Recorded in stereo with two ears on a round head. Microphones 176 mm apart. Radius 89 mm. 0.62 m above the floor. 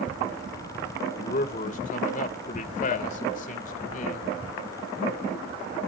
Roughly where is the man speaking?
Left.